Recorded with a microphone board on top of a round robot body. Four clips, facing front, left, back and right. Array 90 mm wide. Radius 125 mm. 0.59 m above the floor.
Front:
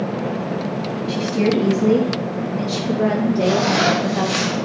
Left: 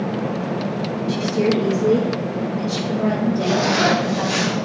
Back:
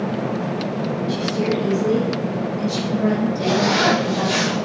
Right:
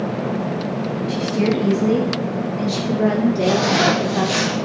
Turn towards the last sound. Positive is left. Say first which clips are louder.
# even, front 1 dB
turn(degrees=-110)